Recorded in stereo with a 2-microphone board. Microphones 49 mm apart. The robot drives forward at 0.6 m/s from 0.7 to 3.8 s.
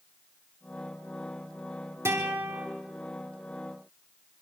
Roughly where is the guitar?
Right.